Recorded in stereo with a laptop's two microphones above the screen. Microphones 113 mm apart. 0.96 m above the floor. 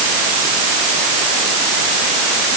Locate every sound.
Only background noise.